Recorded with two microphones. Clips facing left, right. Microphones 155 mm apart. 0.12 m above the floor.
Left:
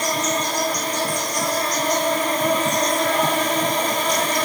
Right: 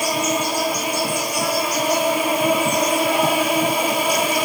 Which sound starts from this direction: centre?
An insect, at 0.0 s.